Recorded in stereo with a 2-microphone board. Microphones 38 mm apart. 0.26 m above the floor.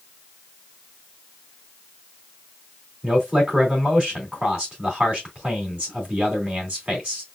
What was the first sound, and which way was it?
A man speaking, 30° right (ahead or behind).